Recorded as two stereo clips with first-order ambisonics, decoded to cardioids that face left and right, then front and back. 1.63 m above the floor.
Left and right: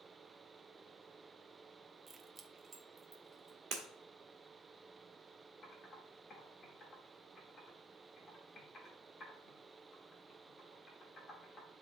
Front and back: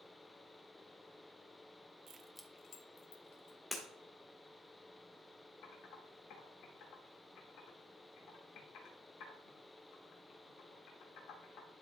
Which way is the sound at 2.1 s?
150° right.